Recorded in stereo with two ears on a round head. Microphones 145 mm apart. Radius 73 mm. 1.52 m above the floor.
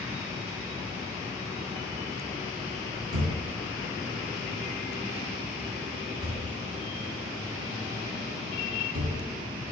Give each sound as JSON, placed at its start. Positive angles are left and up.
{"t": 3.1, "sound": "a thud", "side_deg": -60, "distance_m": 2.5}